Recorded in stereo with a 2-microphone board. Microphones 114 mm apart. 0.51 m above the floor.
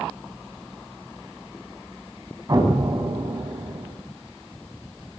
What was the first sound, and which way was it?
An explosion, 35° right (ahead or behind).